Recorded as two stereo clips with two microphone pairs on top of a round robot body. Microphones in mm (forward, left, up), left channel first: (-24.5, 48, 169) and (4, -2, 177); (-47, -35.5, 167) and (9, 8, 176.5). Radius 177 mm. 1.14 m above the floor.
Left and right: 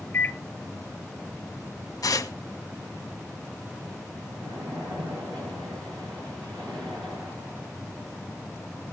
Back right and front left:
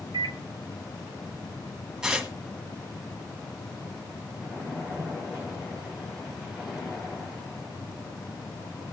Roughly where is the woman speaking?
I don't hear a woman speaking.